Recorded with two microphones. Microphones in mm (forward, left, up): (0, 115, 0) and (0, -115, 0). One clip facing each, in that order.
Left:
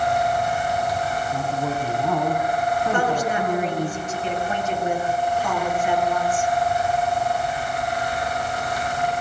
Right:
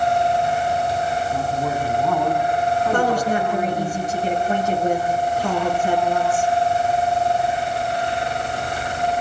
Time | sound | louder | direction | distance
1.3 | a man speaking | right 2 dB | 5° right (ahead or behind) | 5.5 m
2.9 | a woman speaking | right 4 dB | 35° right (ahead or behind) | 8.5 m